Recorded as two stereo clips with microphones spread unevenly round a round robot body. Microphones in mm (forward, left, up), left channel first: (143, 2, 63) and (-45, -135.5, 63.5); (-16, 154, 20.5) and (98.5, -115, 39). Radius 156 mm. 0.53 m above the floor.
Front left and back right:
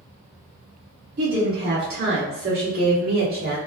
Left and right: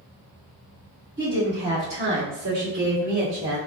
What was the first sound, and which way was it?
A woman speaking, 125° right.